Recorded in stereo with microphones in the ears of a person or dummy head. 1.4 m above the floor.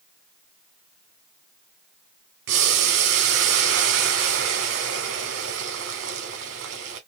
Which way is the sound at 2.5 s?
60° right (ahead or behind).